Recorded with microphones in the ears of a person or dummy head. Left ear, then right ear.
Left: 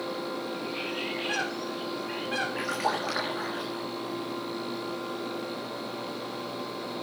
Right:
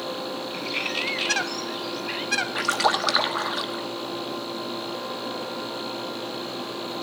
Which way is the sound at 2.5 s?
55° right (ahead or behind).